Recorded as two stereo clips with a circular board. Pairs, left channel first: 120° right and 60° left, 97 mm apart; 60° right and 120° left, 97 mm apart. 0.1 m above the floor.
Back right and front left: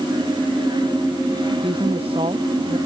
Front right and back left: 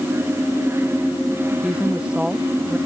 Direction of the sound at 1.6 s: 40° left.